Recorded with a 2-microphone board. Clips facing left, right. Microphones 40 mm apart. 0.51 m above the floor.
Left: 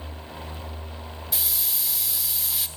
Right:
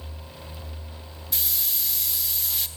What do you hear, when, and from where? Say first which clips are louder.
1.3 s a hiss: right 1 dB; centre (ahead or behind), 1.0 m